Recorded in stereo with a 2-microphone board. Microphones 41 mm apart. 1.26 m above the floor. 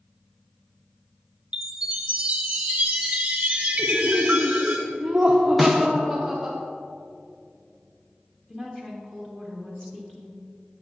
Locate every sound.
1.5 s a chime: 30° right (ahead or behind), 0.9 m
3.8 s laughter: 25° right (ahead or behind), 0.7 m
5.6 s a snare drum: centre (ahead or behind), 0.8 m
8.5 s a woman speaking: 20° left (ahead or behind), 1.2 m